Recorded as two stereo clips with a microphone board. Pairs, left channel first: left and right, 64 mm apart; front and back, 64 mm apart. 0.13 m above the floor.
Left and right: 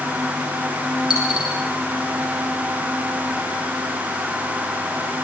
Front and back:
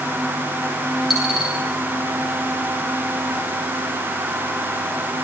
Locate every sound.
1.1 s a dropped coin: 95° left, 7 m